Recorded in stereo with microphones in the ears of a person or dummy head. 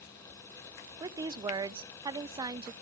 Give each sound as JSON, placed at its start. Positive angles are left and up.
{"t": 1.0, "sound": "a woman speaking", "side_deg": -20, "distance_m": 0.7}